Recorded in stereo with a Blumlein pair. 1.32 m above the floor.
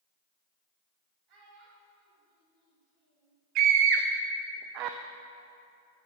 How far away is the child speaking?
About 3.5 m.